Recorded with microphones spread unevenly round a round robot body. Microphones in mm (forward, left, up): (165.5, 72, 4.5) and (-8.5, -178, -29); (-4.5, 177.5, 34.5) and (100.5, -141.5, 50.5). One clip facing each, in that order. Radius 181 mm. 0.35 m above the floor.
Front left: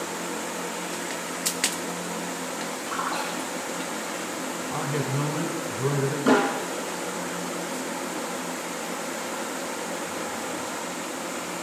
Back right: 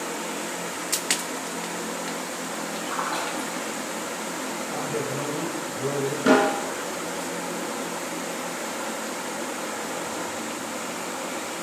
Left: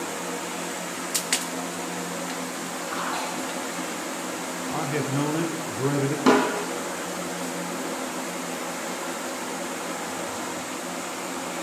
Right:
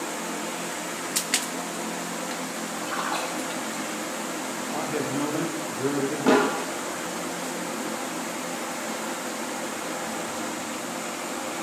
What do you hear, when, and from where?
2.9 s a splash: 90° right, 3.5 m
4.7 s a man speaking: 90° left, 1.1 m
6.3 s a snare drum: 175° left, 3.5 m